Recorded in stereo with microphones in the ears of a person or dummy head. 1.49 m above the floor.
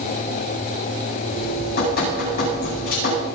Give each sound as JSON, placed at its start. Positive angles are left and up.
{"t": 1.3, "sound": "dripping", "side_deg": 50, "distance_m": 9.5}